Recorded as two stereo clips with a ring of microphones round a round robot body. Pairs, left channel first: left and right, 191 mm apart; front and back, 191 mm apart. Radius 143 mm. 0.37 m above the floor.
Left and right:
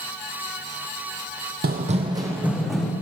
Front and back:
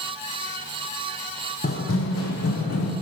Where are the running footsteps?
60° right, 0.7 m; by 2.9 s 5° left, 1.3 m.